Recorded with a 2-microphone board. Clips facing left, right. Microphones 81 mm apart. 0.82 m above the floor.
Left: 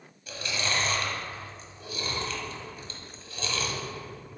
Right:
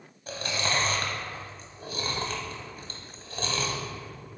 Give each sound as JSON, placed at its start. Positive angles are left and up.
{"t": 0.3, "sound": "chewing", "side_deg": -45, "distance_m": 1.1}